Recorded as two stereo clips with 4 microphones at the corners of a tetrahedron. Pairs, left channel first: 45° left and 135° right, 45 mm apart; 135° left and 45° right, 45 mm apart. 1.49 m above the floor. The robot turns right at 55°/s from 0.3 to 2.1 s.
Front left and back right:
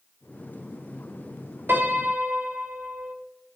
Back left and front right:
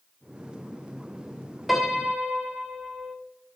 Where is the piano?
135° right, 1.4 m; by 3.1 s 110° right, 1.4 m.